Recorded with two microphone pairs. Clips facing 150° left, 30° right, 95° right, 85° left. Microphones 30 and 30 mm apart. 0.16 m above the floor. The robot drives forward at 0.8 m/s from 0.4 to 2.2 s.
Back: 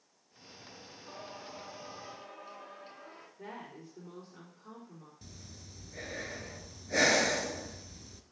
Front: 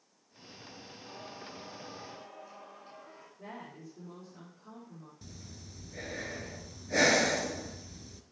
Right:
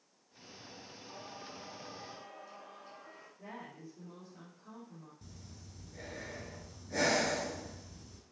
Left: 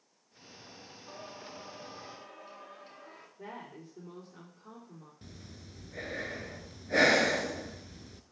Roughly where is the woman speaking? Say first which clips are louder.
Even, left 3 dB; left.